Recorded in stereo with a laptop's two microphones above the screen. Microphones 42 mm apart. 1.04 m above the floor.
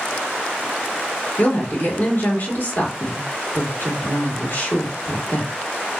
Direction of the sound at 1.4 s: 40° left (ahead or behind).